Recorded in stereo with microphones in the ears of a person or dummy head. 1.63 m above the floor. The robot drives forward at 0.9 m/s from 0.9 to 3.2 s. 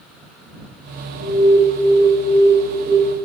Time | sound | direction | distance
1.2 | an alarm | 70° right (ahead or behind) | 7 m